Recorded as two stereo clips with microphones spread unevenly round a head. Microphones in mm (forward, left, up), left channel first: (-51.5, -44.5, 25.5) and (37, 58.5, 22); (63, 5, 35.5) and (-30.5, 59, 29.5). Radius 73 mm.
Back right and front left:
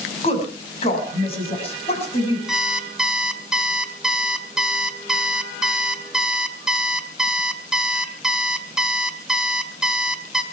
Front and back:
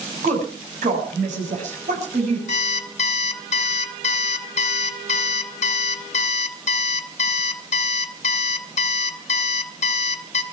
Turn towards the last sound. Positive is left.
turn(degrees=-40)